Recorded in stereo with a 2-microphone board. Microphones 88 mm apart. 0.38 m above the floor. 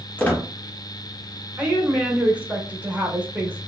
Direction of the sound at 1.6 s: 15° right (ahead or behind).